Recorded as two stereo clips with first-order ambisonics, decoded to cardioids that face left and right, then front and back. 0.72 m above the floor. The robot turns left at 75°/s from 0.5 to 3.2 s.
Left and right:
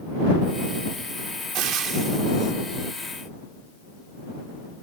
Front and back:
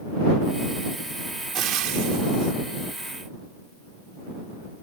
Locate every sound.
1.5 s frying: 125° right; by 2.5 s 160° left